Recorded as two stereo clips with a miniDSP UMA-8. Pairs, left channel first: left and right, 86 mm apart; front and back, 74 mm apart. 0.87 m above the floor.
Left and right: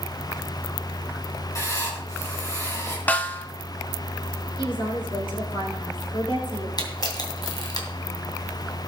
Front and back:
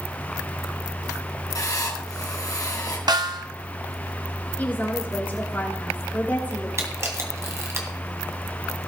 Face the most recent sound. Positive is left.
turn(degrees=130)